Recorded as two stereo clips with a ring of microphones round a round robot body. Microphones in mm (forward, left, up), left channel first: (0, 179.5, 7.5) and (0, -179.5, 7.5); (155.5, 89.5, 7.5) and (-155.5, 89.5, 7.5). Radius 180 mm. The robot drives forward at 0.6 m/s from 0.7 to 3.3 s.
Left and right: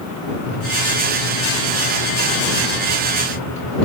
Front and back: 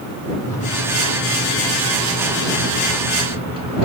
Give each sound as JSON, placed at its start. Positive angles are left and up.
{"t": 0.5, "sound": "a microwave", "azimuth_deg": 80, "distance_m": 3.5}